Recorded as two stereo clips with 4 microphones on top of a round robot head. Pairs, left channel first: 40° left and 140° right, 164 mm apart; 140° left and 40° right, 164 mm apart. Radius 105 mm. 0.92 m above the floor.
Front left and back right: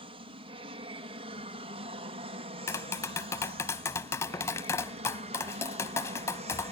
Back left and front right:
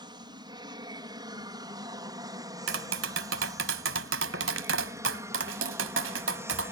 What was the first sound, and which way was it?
An aircraft, 95° right.